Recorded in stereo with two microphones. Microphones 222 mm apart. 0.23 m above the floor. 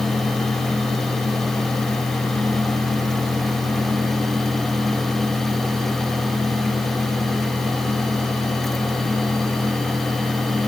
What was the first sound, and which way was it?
Only background noise.